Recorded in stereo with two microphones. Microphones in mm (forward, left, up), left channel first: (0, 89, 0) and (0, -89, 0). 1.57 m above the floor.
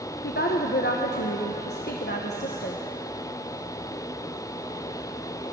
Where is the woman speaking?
70° left (ahead or behind), 1.1 m.